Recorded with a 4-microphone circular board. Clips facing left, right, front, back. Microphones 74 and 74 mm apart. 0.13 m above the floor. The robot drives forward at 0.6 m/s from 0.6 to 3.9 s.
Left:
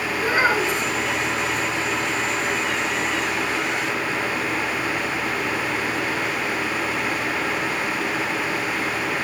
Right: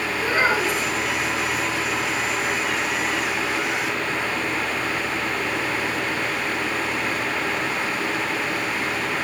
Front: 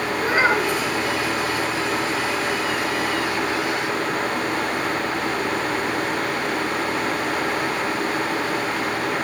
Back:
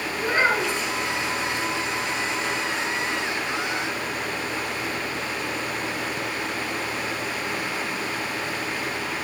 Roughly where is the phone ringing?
No phone ringing in this recording.